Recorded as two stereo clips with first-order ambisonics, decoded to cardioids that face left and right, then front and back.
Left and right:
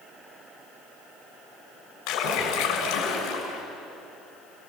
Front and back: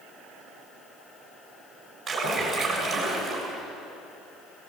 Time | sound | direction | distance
2.1 | a splash | 100° left | 5.5 m